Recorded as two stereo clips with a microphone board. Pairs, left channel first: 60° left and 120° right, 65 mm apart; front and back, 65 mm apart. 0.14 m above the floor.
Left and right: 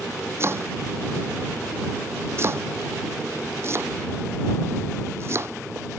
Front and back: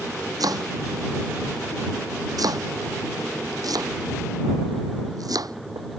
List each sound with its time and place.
0.4 s chopping: 170° right